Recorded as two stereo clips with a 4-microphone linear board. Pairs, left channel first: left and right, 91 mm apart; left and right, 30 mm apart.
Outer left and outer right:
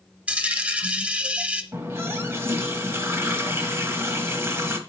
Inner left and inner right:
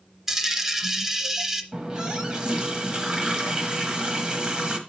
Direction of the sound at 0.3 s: 15° right (ahead or behind).